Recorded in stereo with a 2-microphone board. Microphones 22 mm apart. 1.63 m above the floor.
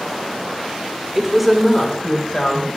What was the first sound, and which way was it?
A woman speaking, 20° right (ahead or behind).